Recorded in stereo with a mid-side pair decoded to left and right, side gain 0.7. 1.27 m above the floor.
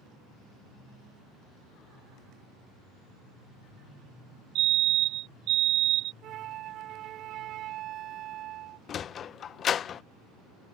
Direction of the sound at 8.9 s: 40° left.